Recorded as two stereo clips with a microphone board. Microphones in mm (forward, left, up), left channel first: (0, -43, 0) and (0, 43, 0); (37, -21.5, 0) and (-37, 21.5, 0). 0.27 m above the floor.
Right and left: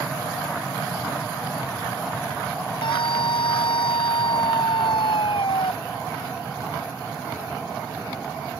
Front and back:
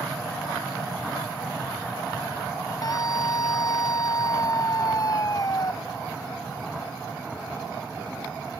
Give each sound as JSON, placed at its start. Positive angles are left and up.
{"t": 2.8, "sound": "a scream", "azimuth_deg": -75}